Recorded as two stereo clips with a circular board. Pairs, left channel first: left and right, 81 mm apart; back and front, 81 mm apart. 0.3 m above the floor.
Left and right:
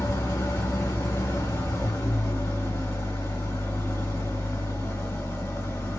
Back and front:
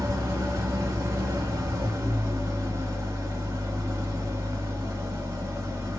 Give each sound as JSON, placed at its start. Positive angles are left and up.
{"t": 0.0, "sound": "an engine running", "azimuth_deg": 45, "distance_m": 1.8}